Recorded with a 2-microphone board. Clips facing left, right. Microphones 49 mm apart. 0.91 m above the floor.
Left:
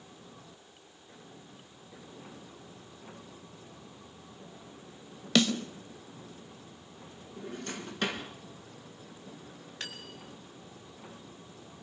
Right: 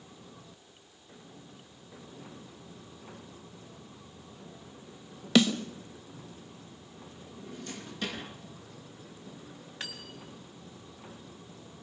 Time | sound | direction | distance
5.3 | a snare drum | 5° right (ahead or behind) | 1.9 m
7.4 | a drawer | 50° left (ahead or behind) | 4.5 m
9.8 | cutlery clinking | 10° right (ahead or behind) | 3.5 m